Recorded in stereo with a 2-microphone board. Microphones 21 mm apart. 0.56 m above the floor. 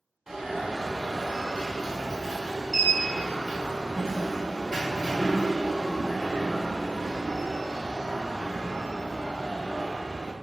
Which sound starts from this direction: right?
An alarm, at 0.3 s.